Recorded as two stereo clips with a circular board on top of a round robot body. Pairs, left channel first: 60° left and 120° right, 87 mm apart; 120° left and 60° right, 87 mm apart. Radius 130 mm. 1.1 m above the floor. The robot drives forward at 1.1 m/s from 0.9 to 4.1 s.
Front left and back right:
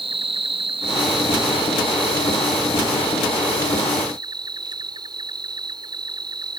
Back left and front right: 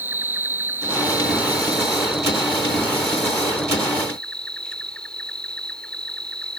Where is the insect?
130° right; by 6.6 s 160° right.